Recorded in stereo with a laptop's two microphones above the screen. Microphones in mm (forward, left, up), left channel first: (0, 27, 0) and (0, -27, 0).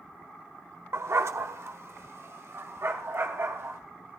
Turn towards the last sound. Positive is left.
turn(degrees=-55)  # may be behind; listen again after turning